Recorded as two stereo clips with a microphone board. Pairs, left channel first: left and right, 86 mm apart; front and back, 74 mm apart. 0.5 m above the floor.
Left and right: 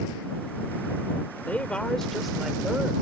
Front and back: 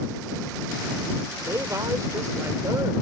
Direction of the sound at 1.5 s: 155° left.